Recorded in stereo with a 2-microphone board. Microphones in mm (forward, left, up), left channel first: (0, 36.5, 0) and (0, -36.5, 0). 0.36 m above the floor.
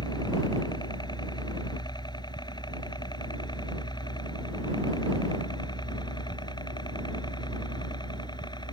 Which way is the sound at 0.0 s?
70° left (ahead or behind).